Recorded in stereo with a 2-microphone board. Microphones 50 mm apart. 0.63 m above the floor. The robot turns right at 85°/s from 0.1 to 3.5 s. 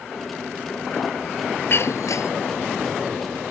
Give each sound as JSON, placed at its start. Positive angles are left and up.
{"t": 1.7, "sound": "breaking glass", "azimuth_deg": 50}